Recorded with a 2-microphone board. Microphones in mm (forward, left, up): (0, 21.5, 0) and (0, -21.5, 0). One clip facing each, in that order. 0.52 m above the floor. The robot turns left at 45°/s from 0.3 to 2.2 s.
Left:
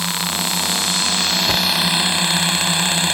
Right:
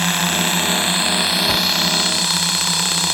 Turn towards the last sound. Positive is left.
turn(degrees=155)